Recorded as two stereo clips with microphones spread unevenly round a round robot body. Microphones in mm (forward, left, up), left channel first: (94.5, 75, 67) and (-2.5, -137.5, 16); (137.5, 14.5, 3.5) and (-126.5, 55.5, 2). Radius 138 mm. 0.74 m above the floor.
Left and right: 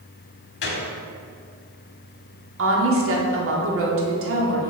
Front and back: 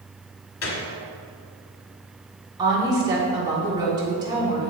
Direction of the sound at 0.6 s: 30° left.